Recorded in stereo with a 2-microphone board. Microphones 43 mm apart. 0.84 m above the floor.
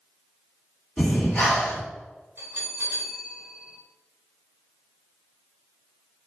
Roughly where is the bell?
Right.